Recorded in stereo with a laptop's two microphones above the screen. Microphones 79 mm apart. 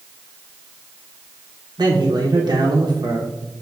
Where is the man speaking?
60° right (ahead or behind), 0.6 m.